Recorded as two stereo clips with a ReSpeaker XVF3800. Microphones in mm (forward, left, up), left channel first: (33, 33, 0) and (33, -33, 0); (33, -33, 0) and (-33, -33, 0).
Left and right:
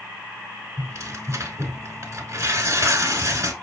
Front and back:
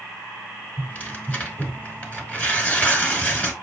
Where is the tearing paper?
65° right, 0.9 m.